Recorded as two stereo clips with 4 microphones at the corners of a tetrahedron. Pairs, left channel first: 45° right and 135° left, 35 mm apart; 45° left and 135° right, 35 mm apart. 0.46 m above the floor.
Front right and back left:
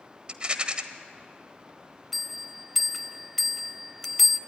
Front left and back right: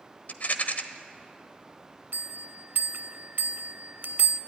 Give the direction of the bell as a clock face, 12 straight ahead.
4 o'clock.